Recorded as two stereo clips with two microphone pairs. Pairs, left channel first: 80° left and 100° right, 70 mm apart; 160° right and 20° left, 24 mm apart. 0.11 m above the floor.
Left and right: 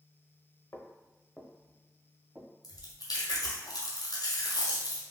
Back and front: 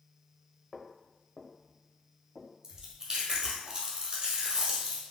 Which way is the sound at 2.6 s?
75° left.